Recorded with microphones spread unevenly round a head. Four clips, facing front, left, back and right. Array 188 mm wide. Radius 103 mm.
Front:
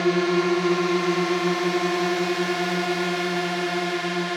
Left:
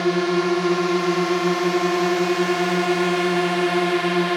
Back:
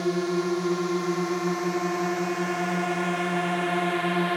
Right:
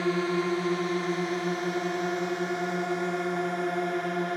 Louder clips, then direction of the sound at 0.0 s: Left 7 dB, front 5 dB; 45° left.